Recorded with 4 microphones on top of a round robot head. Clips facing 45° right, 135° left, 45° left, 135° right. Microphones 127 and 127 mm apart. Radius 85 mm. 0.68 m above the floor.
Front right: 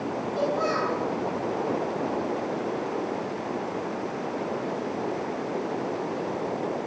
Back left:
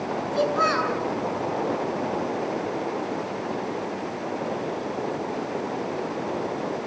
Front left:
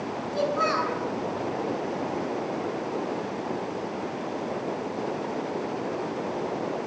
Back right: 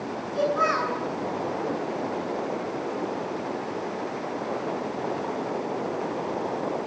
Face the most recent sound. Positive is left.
turn(degrees=110)